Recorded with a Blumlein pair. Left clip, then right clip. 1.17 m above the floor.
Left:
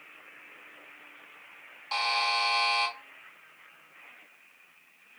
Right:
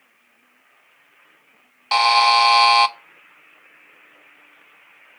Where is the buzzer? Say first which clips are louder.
Right 13 dB; 55° right, 0.5 m.